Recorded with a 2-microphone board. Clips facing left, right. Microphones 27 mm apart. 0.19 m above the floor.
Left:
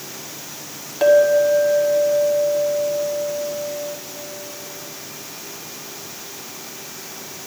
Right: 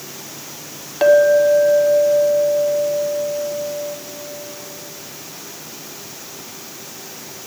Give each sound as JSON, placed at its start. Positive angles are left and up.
{"t": 1.0, "sound": "a clink", "side_deg": -15, "distance_m": 0.8}